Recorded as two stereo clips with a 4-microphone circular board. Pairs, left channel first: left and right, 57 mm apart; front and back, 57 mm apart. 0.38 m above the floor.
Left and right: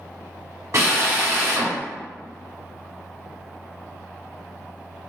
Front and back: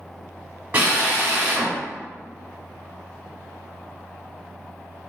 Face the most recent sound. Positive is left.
turn(degrees=-125)